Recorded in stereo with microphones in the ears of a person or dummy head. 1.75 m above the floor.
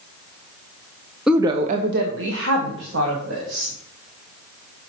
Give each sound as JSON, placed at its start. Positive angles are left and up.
{"t": 1.3, "sound": "a woman speaking", "side_deg": -5, "distance_m": 0.8}